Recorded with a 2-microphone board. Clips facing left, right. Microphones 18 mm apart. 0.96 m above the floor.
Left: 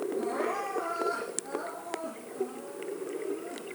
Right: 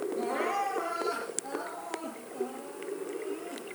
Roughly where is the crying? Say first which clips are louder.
Right 2 dB; right.